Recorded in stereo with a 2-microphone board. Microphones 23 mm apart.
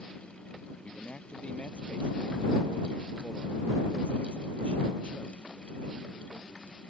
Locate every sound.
0.8 s a man speaking: 60° left (ahead or behind); by 6.6 s 75° left (ahead or behind)